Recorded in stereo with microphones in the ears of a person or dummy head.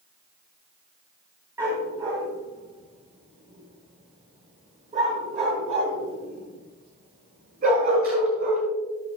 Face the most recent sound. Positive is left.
turn(degrees=-55)  # may be behind; listen again after turning